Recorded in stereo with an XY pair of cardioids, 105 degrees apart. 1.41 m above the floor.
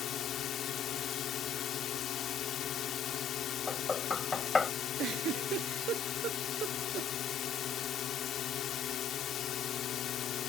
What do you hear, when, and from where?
0.0 s a drone: 65° left
3.7 s knocking: 30° left
5.0 s a giggle: 70° right